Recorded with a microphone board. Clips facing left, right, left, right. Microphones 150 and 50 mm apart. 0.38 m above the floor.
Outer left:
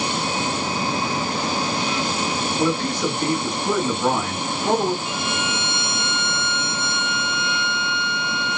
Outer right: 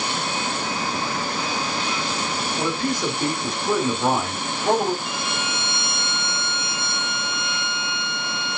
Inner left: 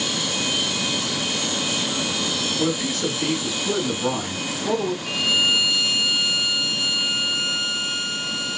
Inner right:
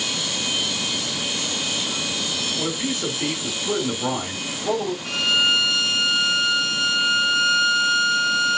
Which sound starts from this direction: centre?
A man speaking, at 2.6 s.